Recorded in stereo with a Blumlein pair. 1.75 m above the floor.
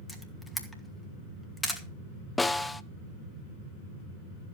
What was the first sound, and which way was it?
A camera shutter, 5° left.